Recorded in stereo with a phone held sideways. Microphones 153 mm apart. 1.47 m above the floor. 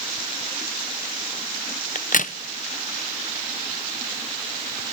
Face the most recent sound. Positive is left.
turn(degrees=60)  # may be behind; listen again after turning